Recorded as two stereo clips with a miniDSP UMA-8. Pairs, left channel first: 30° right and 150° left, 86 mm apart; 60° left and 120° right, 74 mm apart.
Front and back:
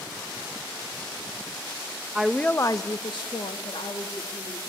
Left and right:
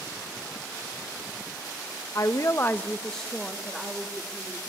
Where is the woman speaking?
70° left, 0.6 m; by 4.6 s 40° right, 1.8 m.